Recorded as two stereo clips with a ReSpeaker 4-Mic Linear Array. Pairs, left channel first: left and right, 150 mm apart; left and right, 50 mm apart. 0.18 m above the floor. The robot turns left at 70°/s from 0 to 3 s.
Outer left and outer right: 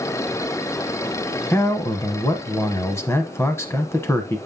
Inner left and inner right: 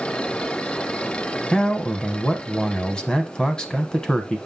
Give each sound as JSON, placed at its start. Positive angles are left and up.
{"t": 1.5, "sound": "a man speaking", "side_deg": 15, "distance_m": 1.0}